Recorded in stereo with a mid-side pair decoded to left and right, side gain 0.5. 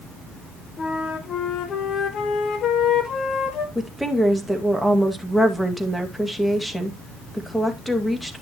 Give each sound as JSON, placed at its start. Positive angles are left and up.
{"t": 0.8, "sound": "a flute", "azimuth_deg": 55, "distance_m": 1.6}
{"t": 3.8, "sound": "a woman speaking", "azimuth_deg": 0, "distance_m": 2.0}